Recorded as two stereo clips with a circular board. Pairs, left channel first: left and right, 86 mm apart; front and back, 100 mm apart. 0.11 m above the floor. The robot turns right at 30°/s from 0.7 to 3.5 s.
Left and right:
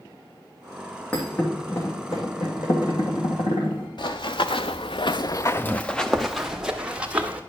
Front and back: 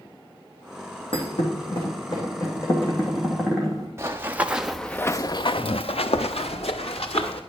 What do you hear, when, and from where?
1.1 s a thud: 15° left, 2.5 m; by 3.9 s 85° left, 2.5 m
4.0 s running footsteps: 115° left, 1.1 m; by 7.4 s 15° right, 1.9 m